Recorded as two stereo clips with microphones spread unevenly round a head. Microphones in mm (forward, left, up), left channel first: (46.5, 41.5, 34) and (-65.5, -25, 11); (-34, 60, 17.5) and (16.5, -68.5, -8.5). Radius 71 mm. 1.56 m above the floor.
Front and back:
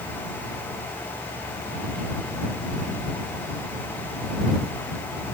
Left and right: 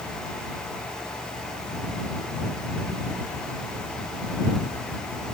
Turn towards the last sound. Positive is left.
No sound to turn to.